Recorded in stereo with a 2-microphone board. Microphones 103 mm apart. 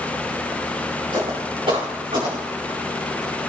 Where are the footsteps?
70° right (ahead or behind), 5 m; by 2.8 s 55° right (ahead or behind), 4.5 m.